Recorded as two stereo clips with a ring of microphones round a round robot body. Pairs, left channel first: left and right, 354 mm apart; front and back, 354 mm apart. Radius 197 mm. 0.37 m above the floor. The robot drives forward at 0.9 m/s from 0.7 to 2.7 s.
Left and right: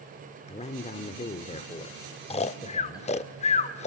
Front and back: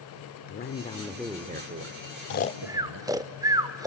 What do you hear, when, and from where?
0.5 s a man speaking: 35° left, 1.0 m; by 3.3 s 170° left, 1.6 m
2.3 s snoring: 25° left, 0.6 m; by 3.9 s 120° left, 0.5 m